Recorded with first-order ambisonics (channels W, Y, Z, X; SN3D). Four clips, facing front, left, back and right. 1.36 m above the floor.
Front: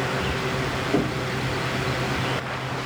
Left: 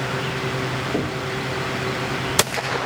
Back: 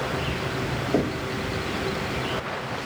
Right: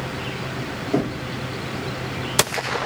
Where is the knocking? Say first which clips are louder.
Right 1 dB, even; 65° right, 1.9 m.